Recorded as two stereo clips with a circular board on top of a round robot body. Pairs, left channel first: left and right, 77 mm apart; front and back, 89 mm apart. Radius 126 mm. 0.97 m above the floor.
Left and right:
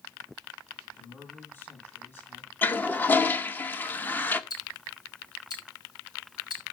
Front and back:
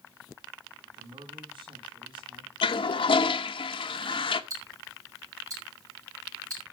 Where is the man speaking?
155° left, 8.5 m.